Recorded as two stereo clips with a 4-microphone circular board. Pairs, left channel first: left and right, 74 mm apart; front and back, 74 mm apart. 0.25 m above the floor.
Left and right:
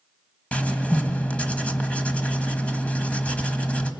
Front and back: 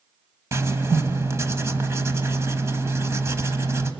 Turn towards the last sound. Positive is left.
turn(degrees=155)